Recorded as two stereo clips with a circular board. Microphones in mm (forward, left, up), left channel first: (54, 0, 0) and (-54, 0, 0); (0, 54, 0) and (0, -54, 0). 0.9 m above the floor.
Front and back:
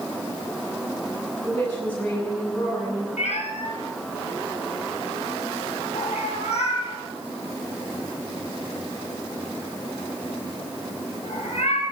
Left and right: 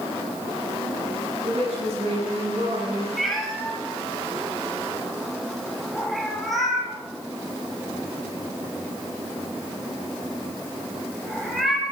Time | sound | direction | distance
1.4 | a woman speaking | 75° right | 8.5 m
3.2 | a cat meowing | straight ahead | 4 m